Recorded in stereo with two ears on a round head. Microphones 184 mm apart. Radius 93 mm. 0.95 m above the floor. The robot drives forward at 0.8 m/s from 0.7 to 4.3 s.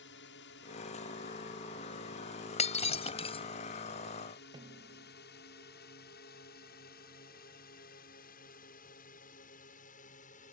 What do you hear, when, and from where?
0.0 s a drone: 60° left (ahead or behind); by 10.5 s 40° left (ahead or behind)
2.6 s breaking glass: 35° left (ahead or behind); by 3.4 s 30° left (ahead or behind)
4.5 s a snare drum: 25° right (ahead or behind)